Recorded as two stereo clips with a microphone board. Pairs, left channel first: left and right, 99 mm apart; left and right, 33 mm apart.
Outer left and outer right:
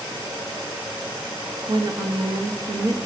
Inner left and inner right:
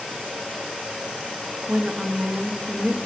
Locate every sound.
1.7 s a woman speaking: 55° right (ahead or behind), 1.1 m